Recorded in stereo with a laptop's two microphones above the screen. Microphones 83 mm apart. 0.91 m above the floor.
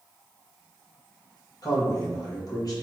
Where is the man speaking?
50° left (ahead or behind), 1.4 m.